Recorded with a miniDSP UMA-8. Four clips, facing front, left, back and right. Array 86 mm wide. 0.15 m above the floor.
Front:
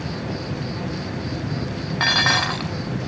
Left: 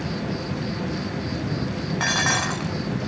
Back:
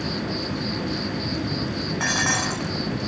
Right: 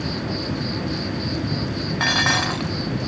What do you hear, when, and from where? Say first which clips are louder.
0.0 s an insect: right 2 dB, back 1 dB; 140° right, 1.6 m
2.0 s dishes clattering: right 3 dB, front 5 dB; 20° right, 0.7 m